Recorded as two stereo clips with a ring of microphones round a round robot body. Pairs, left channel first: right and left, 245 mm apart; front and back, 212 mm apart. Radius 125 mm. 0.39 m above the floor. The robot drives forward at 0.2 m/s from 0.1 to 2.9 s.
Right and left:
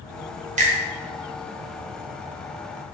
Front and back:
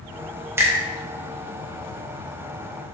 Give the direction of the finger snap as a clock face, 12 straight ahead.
8 o'clock.